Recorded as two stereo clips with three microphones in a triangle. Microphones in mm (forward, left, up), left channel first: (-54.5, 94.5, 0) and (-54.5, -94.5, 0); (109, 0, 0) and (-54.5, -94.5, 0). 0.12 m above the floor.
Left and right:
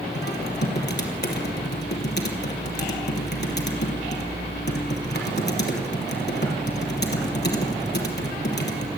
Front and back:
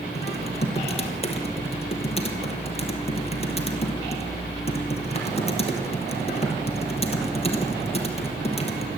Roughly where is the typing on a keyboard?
Left.